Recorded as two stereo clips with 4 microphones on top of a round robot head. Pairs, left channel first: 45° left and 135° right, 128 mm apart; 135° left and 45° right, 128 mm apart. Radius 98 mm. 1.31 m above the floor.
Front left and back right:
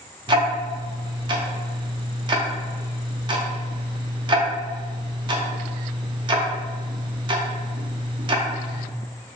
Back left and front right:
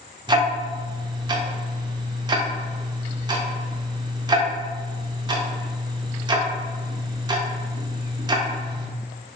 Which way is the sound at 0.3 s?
90° right.